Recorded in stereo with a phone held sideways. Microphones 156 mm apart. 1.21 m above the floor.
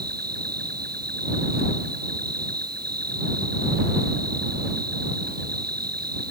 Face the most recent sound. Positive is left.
turn(degrees=-90)